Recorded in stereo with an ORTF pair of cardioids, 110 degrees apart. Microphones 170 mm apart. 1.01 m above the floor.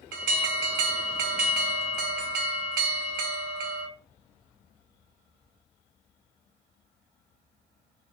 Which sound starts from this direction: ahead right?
An alarm, at 0.1 s.